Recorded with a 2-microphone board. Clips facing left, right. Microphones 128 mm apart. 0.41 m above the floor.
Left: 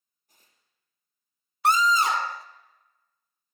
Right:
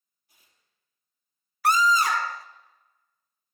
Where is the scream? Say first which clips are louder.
Even; 25° left (ahead or behind), 0.9 m.